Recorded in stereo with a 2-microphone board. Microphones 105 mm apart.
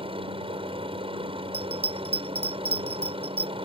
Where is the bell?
80° right.